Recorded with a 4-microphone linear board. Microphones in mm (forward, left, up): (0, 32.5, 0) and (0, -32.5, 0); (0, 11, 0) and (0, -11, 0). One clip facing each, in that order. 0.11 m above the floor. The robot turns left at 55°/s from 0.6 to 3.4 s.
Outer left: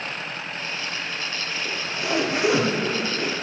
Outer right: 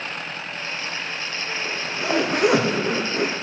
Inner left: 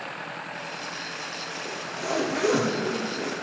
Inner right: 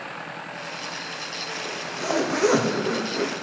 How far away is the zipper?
About 3.5 m.